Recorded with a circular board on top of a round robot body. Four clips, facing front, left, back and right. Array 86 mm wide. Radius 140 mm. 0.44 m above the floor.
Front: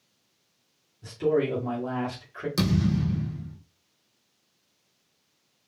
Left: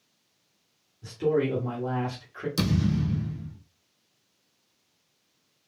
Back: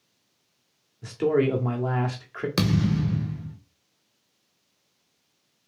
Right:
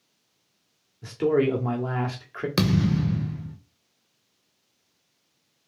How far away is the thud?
About 0.9 m.